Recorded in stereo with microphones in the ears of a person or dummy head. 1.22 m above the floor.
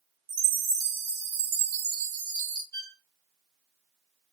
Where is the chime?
65° right (ahead or behind), 1.6 m.